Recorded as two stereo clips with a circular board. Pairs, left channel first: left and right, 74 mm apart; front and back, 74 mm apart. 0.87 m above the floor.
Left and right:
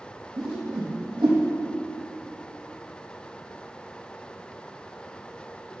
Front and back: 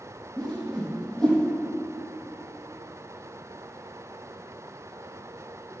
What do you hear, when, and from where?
0.4 s a whoosh: 70° right, 5 m